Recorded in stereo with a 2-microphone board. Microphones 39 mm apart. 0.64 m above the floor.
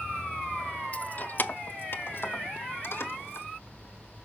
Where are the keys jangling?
35° left (ahead or behind), 0.5 m; by 3.5 s 80° left, 1.6 m.